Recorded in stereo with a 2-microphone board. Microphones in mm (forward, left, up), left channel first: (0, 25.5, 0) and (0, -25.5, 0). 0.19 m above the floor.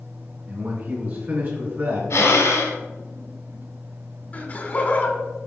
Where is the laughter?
35° left (ahead or behind), 1.6 m.